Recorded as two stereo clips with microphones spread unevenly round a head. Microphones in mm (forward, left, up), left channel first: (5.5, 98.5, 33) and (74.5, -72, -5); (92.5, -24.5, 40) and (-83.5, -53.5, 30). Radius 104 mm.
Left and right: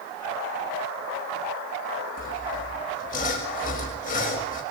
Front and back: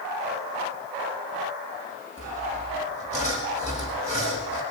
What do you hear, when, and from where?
2.2 s sawing: 70° left, 6 m